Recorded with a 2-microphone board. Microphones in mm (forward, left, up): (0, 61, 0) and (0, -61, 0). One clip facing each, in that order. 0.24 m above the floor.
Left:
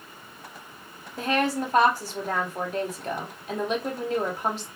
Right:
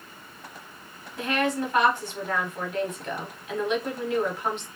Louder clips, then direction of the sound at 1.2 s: Left 1 dB; 35° left (ahead or behind).